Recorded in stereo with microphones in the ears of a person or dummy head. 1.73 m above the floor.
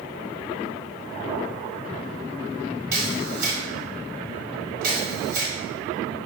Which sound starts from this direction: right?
A camera shutter, at 2.9 s.